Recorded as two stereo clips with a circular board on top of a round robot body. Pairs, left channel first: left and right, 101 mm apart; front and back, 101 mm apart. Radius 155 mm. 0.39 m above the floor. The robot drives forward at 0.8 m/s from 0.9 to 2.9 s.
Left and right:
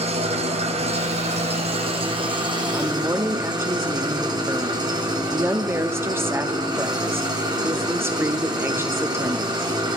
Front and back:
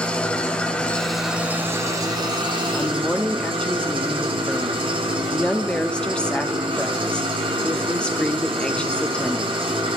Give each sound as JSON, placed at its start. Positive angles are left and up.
{"t": 0.0, "sound": "an engine running", "azimuth_deg": -80, "distance_m": 1.1}
{"t": 2.7, "sound": "a woman speaking", "azimuth_deg": -50, "distance_m": 0.8}